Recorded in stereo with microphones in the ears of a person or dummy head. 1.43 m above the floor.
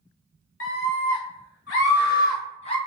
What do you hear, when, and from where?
0.6 s a scream: 80° left, 1.3 m; by 2.8 s 35° left (ahead or behind), 0.7 m